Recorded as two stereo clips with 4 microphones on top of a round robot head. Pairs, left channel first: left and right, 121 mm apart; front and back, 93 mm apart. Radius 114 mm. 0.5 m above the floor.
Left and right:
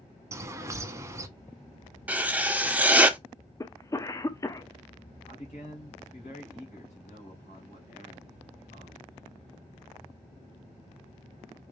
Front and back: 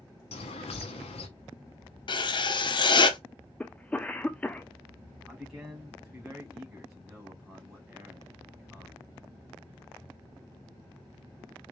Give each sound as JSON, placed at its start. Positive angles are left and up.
{"t": 0.3, "sound": "a bird", "azimuth_deg": -25, "distance_m": 0.8}
{"t": 2.1, "sound": "writing", "azimuth_deg": -15, "distance_m": 1.0}
{"t": 3.6, "sound": "a cough", "azimuth_deg": 65, "distance_m": 0.7}
{"t": 5.3, "sound": "a man speaking", "azimuth_deg": 100, "distance_m": 2.5}